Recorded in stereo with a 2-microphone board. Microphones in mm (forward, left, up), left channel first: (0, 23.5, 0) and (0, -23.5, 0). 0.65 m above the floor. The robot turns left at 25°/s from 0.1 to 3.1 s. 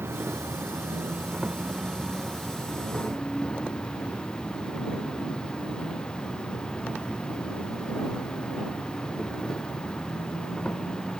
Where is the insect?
125° right; by 11.2 s 160° left.